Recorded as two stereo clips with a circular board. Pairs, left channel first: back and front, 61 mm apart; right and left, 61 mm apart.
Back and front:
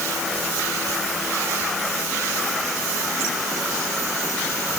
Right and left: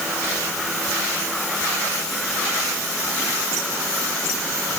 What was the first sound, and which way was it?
Only background noise.